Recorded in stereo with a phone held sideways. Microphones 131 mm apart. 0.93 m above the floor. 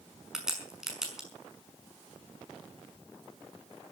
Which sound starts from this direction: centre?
A crack, at 0.3 s.